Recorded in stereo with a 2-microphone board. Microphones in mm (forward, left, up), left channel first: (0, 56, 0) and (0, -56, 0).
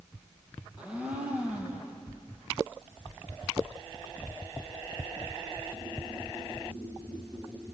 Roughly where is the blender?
Centre.